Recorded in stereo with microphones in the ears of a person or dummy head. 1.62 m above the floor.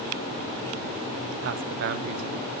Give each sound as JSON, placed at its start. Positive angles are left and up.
{"t": 1.4, "sound": "a man speaking", "side_deg": -60, "distance_m": 0.6}